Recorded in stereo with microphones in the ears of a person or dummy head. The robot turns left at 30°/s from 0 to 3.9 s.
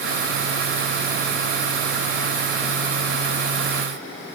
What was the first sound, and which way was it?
Only background noise.